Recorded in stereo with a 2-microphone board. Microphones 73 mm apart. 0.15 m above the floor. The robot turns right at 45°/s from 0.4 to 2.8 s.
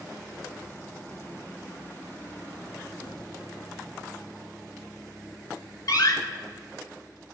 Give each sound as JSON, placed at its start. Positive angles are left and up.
{"t": 3.0, "sound": "a gunshot", "side_deg": 45, "distance_m": 4.5}
{"t": 5.9, "sound": "a door slam", "side_deg": 55, "distance_m": 1.6}